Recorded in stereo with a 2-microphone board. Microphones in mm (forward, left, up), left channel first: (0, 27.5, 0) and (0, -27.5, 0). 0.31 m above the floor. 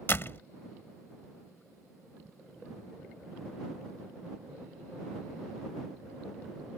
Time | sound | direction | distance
0.1 | a door slam | 45° left (ahead or behind) | ?